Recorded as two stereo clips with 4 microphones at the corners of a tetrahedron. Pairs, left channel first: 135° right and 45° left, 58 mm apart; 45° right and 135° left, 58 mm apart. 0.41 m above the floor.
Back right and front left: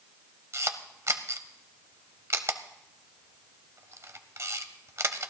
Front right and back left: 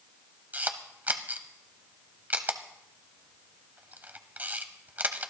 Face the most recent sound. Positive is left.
turn(degrees=80)